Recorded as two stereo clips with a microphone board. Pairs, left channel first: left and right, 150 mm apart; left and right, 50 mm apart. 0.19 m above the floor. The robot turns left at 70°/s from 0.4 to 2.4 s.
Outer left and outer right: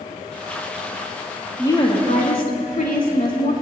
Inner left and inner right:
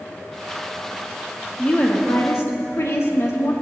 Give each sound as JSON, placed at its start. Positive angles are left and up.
{"t": 1.6, "sound": "a woman speaking", "azimuth_deg": 160, "distance_m": 4.0}